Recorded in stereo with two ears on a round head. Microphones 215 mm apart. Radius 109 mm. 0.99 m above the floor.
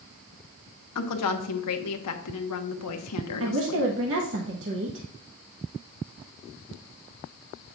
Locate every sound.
0.9 s a woman speaking: 80° left, 1.2 m
3.4 s a woman speaking: 55° right (ahead or behind), 1.0 m